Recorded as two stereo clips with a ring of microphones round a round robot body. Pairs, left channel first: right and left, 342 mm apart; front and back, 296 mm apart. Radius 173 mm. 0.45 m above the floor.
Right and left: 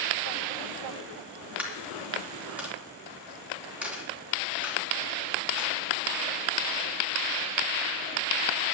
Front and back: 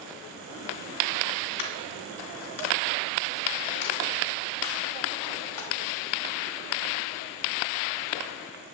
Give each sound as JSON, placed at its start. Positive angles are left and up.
{"t": 1.6, "sound": "a dropped coin", "azimuth_deg": 5, "distance_m": 2.5}